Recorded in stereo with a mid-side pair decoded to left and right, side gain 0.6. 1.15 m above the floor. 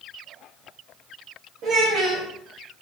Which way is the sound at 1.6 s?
70° right.